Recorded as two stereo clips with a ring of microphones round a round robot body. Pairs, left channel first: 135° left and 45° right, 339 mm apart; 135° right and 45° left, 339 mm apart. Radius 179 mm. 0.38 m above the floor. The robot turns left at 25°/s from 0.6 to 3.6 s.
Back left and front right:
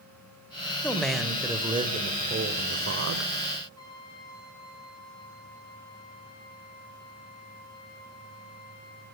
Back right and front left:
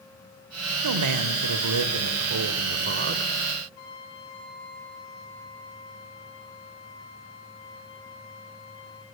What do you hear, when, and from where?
0.8 s a man speaking: 50° left, 1.7 m; by 3.3 s 10° right, 1.7 m
3.8 s a trumpet: 145° right, 4.5 m